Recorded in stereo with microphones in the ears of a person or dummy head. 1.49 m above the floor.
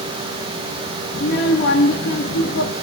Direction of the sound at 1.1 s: 70° left (ahead or behind).